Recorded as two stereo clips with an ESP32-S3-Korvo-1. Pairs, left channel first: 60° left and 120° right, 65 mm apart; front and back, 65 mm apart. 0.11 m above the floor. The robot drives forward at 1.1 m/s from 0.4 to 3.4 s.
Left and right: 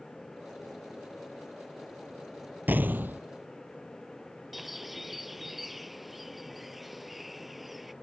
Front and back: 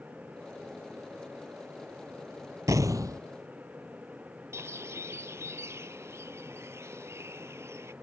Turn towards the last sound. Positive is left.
turn(degrees=150)